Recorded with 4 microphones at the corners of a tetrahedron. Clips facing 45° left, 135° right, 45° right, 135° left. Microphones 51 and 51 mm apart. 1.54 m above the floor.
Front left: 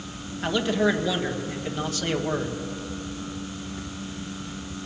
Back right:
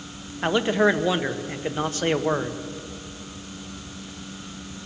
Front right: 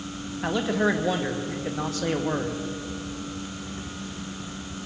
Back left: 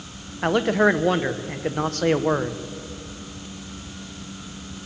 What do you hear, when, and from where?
0.4 s a man speaking: 165° left, 1.4 m